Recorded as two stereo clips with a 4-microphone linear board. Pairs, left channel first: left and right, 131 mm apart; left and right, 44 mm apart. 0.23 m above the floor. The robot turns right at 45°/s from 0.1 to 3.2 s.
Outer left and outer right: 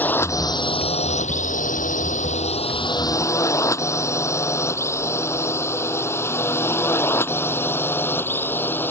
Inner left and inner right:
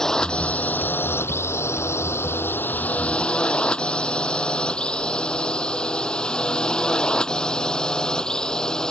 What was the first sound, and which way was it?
A drone, 15° left (ahead or behind).